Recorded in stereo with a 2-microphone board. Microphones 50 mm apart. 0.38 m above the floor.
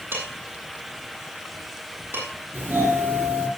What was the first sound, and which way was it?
Dishes clattering, 50° right (ahead or behind).